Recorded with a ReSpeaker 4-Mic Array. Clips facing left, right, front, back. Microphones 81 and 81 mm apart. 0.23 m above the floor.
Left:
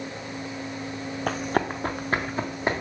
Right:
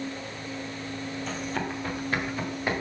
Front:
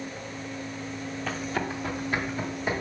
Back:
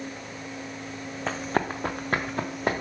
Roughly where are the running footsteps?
Behind left.